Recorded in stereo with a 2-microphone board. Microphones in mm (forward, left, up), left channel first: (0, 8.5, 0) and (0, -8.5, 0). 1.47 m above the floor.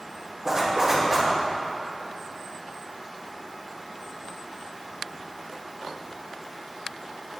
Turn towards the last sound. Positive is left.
turn(degrees=-40)  # may be behind; listen again after turning